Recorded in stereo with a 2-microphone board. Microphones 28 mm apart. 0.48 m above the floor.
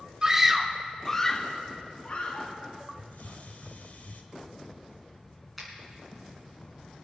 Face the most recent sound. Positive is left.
turn(degrees=0)  # may be behind; listen again after turning